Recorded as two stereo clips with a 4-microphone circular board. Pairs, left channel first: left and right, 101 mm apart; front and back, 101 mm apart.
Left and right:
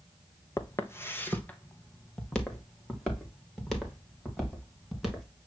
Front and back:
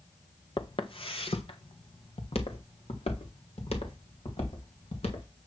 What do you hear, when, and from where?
0.6 s footsteps: 30° left, 1.1 m; by 5.3 s straight ahead, 4 m